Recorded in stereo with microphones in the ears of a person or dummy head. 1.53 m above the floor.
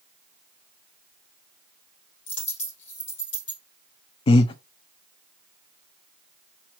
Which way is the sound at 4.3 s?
35° left (ahead or behind).